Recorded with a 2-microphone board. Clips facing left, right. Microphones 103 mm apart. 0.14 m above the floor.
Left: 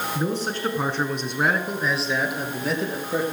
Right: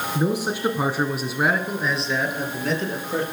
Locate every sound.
0.1 s a man speaking: 15° right (ahead or behind), 1.4 m; by 3.2 s 5° left (ahead or behind), 3 m